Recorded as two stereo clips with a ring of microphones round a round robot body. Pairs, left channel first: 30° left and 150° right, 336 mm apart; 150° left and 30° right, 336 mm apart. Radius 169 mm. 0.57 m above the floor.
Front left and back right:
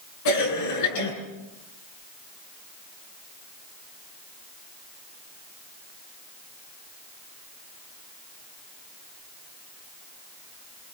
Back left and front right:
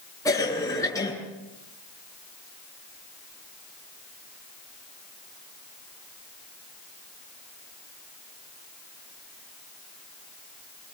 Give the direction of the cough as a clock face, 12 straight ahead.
10 o'clock.